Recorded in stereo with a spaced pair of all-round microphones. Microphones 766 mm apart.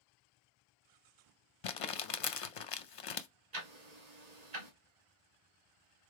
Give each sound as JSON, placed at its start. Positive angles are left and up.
{"t": 1.6, "sound": "crumpling", "side_deg": 50, "distance_m": 0.5}
{"t": 3.5, "sound": "ticking", "side_deg": -55, "distance_m": 1.4}